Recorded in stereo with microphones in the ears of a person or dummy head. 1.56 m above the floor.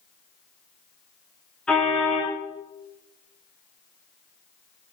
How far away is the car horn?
About 9 m.